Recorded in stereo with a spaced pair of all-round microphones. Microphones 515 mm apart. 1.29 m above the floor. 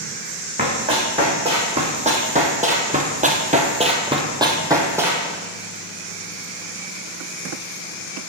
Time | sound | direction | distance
0.6 | running footsteps | 10° right (ahead or behind) | 3 m